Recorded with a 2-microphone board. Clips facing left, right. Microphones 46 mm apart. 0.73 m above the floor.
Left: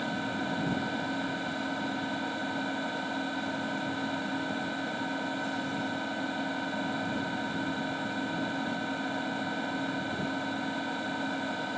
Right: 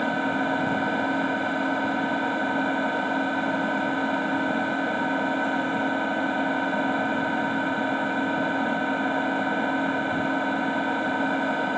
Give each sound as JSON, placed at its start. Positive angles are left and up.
{"t": 0.0, "sound": "an engine running", "side_deg": -35}